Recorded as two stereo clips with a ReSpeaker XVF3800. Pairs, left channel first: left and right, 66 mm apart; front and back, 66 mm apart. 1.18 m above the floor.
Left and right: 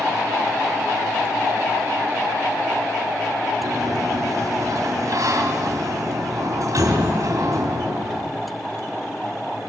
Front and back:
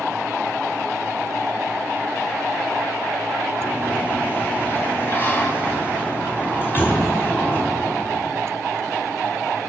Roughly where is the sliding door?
Ahead right.